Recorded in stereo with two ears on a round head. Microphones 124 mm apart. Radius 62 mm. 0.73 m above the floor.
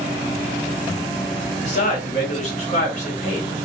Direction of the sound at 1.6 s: 55° left (ahead or behind).